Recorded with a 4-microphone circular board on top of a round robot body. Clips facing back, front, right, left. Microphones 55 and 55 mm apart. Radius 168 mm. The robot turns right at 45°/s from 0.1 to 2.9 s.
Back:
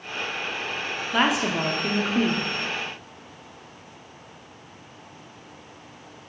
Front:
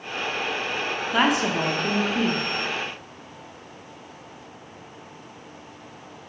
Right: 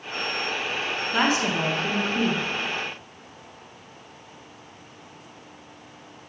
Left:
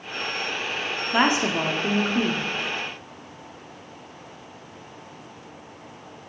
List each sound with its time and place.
1.1 s a woman speaking: 85° left, 1.1 m; by 2.5 s 150° left, 1.1 m